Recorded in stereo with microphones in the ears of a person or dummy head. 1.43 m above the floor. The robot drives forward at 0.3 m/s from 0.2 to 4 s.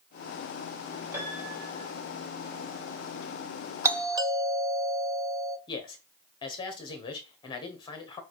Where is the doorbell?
20° right (ahead or behind), 0.5 m.